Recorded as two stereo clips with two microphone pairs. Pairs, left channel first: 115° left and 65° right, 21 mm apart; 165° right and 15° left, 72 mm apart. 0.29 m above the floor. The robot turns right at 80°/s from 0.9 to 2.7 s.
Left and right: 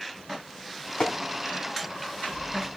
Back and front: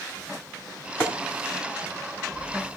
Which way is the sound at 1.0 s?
140° left.